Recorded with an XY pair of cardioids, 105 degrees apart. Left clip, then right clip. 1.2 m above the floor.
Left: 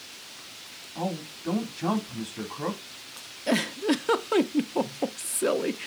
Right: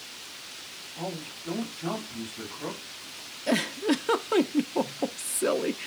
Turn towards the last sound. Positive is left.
turn(degrees=10)